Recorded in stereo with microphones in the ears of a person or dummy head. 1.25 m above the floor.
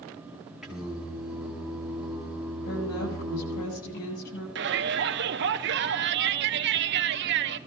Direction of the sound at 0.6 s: Centre (ahead or behind).